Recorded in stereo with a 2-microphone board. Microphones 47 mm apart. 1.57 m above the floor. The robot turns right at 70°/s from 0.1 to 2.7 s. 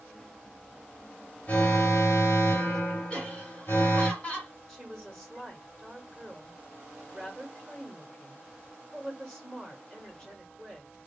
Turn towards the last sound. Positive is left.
turn(degrees=5)  # may be behind; listen again after turning